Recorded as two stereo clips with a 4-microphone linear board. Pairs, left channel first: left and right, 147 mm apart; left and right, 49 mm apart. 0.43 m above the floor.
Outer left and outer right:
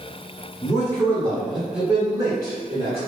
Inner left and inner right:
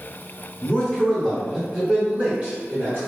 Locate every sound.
0.6 s a man speaking: 25° left (ahead or behind), 1.1 m; by 3.0 s 35° right (ahead or behind), 1.2 m